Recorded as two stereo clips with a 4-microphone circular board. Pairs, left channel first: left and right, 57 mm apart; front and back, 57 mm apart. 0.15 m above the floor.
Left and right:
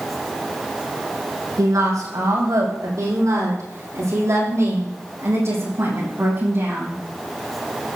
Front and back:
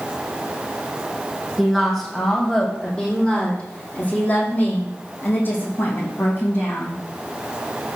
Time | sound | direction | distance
1.6 | a woman speaking | 85° right | 6 m